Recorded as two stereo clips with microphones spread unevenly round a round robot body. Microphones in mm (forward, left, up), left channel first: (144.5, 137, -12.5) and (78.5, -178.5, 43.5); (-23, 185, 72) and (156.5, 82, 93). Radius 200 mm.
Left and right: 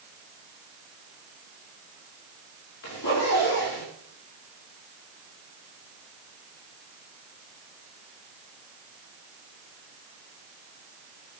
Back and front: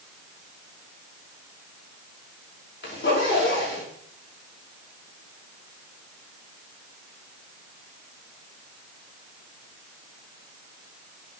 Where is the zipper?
125° left, 6 m.